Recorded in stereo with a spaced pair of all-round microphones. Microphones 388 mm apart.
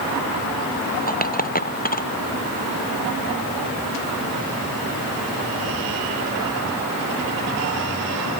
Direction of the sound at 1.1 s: 20° left (ahead or behind).